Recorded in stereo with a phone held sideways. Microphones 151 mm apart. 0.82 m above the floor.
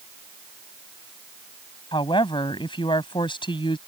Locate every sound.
1.9 s a woman speaking: 35° left (ahead or behind)